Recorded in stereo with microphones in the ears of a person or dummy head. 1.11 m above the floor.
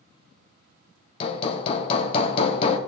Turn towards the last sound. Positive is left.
turn(degrees=35)  # may be behind; listen again after turning